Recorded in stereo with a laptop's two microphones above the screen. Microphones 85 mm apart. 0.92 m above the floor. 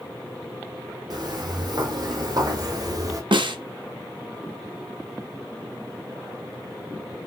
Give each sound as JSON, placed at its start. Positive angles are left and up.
{"t": 1.1, "sound": "footsteps", "side_deg": -55, "distance_m": 2.0}
{"t": 3.3, "sound": "a snare drum", "side_deg": -65, "distance_m": 0.7}